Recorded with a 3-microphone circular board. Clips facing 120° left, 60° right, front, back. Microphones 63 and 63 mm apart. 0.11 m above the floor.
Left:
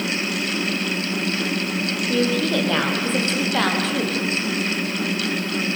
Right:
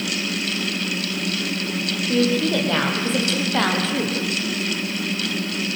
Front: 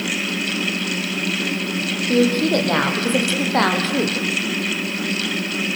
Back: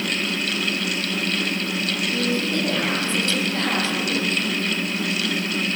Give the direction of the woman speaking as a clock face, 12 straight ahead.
11 o'clock.